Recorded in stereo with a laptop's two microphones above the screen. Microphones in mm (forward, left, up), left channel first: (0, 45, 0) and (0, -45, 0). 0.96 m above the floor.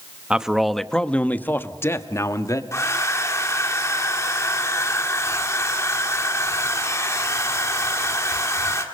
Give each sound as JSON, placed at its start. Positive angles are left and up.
{"t": 0.3, "sound": "a man speaking", "side_deg": -10, "distance_m": 1.1}
{"t": 2.7, "sound": "a hair dryer", "side_deg": 30, "distance_m": 1.7}